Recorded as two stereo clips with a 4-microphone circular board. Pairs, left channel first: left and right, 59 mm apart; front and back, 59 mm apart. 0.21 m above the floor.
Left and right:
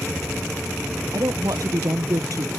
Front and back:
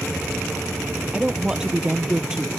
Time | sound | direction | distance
1.1 | a woman speaking | 100° right | ?